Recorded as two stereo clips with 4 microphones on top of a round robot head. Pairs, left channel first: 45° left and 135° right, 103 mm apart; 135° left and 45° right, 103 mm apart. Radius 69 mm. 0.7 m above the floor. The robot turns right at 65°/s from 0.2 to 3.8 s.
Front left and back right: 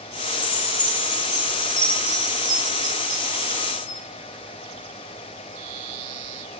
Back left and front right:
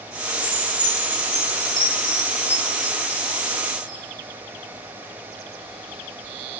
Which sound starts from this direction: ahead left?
A chime, at 0.4 s.